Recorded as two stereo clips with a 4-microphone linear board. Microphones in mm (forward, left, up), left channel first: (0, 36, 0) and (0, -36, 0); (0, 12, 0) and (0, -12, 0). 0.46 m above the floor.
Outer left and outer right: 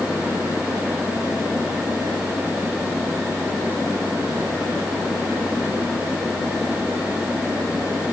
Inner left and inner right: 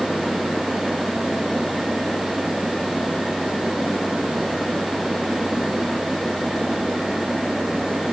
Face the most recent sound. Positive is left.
No sound to turn to.